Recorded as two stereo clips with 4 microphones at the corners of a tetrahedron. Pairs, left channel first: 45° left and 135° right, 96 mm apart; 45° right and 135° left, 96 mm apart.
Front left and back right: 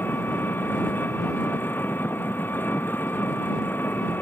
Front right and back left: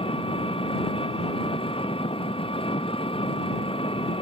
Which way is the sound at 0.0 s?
25° right.